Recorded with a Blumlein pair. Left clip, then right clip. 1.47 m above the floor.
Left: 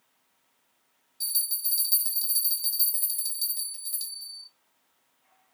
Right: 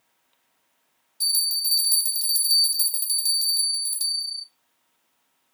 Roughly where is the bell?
Ahead.